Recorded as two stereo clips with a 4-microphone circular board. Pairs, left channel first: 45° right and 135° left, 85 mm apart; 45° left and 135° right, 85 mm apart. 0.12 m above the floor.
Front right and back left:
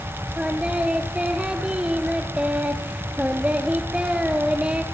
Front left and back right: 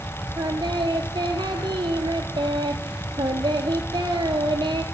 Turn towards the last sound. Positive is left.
turn(degrees=-150)